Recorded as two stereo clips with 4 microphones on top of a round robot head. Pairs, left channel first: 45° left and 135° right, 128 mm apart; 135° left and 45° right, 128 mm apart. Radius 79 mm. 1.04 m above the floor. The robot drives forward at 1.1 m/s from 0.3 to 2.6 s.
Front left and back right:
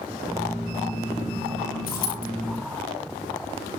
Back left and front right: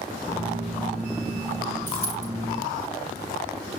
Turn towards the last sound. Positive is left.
turn(degrees=70)